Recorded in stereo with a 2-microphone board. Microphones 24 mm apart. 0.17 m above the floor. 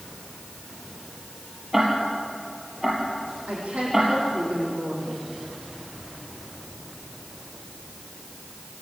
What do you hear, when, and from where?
1.7 s ticking: 15° right (ahead or behind), 5 m
3.5 s a woman speaking: 70° right (ahead or behind), 8 m